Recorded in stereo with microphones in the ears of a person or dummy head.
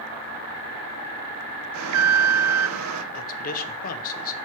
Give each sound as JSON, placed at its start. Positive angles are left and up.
{"t": 1.7, "sound": "an alarm", "side_deg": -80, "distance_m": 0.7}
{"t": 3.1, "sound": "a man speaking", "side_deg": 45, "distance_m": 0.9}